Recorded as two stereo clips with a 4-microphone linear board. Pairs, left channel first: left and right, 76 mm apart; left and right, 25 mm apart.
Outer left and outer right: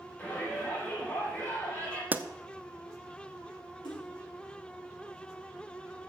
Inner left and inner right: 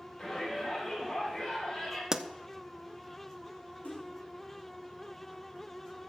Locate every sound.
0.2 s a shout: 20° left (ahead or behind), 6 m
2.1 s a pop: 25° right (ahead or behind), 0.5 m
3.8 s a splash: 75° left (ahead or behind), 3.5 m